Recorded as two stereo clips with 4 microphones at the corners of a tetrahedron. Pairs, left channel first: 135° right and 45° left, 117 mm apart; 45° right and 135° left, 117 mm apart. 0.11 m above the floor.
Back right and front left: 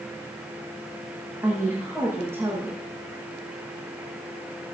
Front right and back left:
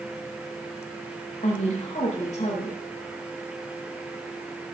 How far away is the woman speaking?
About 8 m.